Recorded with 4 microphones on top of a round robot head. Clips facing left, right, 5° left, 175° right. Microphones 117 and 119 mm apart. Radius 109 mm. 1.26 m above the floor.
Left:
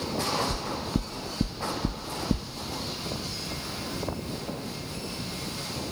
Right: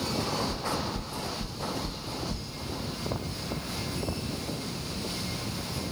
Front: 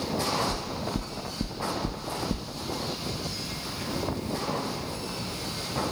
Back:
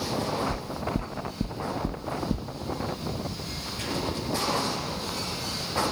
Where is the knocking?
100° left, 1.2 m.